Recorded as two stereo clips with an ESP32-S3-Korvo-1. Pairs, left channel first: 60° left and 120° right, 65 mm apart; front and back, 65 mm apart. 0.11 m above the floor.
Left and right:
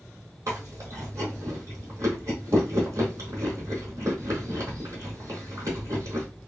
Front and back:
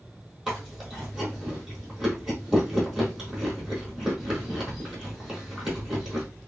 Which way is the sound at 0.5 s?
95° right.